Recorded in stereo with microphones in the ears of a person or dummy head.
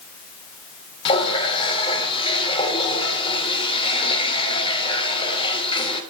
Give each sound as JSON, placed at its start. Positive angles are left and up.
{"t": 1.1, "sound": "a running tap", "side_deg": 30, "distance_m": 2.5}